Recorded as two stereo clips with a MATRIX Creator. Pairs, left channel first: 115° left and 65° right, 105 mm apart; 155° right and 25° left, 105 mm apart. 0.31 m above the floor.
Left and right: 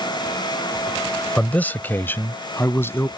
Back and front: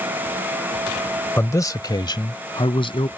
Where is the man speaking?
175° left; by 3.1 s straight behind.